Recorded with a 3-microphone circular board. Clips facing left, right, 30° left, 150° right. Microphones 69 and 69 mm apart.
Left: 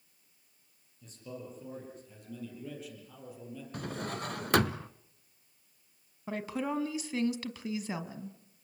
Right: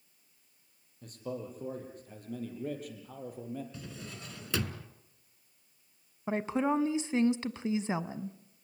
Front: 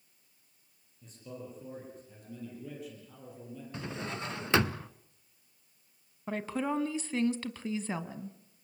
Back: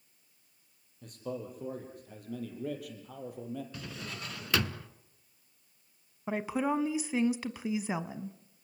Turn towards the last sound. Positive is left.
turn(degrees=-90)